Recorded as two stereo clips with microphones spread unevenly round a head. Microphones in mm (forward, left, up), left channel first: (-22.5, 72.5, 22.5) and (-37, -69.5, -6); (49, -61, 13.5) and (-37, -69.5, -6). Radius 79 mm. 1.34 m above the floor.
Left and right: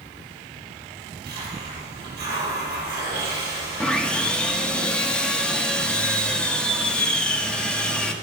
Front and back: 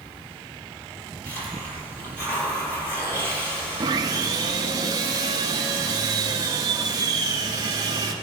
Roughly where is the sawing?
Behind left.